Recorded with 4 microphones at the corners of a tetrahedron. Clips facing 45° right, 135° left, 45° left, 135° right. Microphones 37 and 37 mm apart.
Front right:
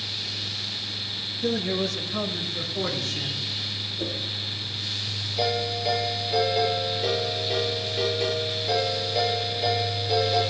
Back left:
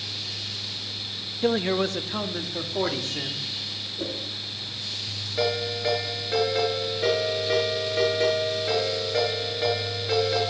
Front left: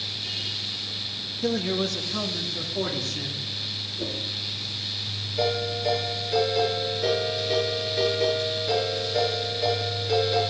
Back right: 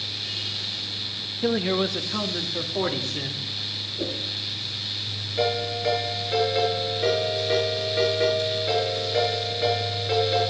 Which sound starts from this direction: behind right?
A whoosh, at 4.0 s.